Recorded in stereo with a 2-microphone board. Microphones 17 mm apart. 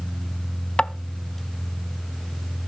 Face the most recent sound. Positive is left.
turn(degrees=80)